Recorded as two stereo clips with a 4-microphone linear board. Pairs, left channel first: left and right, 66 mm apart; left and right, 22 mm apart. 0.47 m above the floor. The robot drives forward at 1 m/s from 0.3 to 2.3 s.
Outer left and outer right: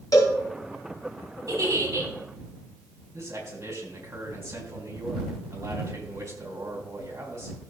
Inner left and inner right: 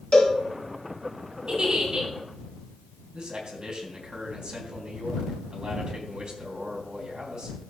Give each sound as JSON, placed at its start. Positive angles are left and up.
{"t": 0.1, "sound": "a cowbell", "side_deg": 60, "distance_m": 3.5}
{"t": 1.5, "sound": "a giggle", "side_deg": -55, "distance_m": 3.0}
{"t": 3.1, "sound": "a man speaking", "side_deg": -45, "distance_m": 4.0}